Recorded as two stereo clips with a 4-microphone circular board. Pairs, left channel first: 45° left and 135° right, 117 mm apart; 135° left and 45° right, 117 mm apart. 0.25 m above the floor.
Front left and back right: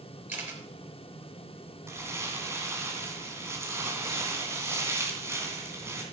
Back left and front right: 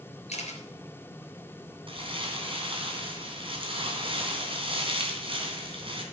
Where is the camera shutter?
150° left, 3 m.